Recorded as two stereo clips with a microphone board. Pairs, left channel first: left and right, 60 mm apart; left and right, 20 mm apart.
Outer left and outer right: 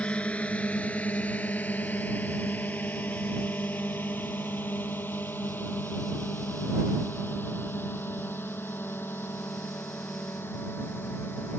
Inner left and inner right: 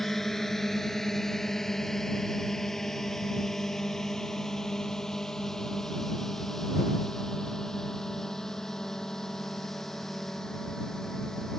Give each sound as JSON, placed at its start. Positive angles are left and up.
{"t": 0.0, "sound": "a drone", "side_deg": 20}